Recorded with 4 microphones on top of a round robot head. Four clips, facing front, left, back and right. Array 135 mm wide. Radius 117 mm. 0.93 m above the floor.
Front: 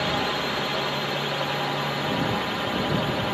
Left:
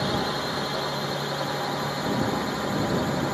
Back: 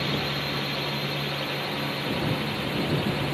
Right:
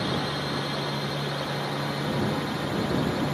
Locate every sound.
0.0 s a drone: 25° left; by 3.4 s 30° left